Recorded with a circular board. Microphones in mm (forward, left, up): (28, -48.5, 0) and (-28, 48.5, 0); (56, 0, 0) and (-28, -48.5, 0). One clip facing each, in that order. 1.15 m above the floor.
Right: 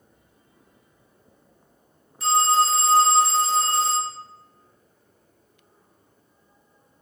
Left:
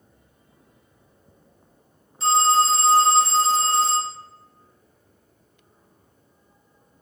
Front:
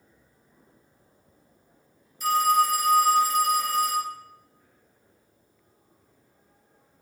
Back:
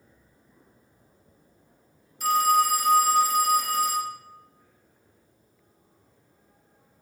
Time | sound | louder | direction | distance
2.2 | a phone ringing | left 1 dB, even | straight behind | 2.5 m